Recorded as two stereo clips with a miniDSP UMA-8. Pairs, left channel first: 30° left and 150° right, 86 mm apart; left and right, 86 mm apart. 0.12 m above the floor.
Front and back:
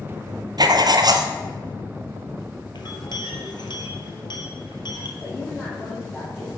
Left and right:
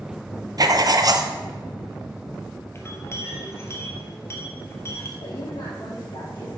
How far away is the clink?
About 1.4 m.